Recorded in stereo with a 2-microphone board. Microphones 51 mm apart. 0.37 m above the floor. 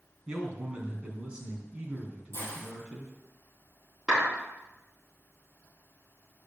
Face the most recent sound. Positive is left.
turn(degrees=-15)  # may be behind; listen again after turning